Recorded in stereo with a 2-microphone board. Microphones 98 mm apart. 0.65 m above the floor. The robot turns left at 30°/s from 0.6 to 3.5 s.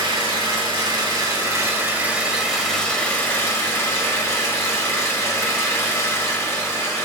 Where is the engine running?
120° right, 1.6 m; by 7.1 s 150° left, 1.6 m.